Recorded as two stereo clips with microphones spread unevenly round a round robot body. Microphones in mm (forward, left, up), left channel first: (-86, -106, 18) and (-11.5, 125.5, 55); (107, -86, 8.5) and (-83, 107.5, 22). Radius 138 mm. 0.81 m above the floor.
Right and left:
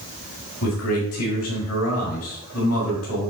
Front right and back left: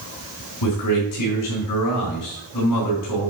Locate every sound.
0.6 s a man speaking: 75° right, 4.5 m